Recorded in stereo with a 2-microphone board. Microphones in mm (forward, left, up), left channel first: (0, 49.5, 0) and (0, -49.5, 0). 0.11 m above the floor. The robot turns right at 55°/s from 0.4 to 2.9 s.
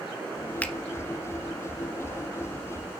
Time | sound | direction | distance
0.6 | a finger snap | 15° left (ahead or behind) | 1.4 m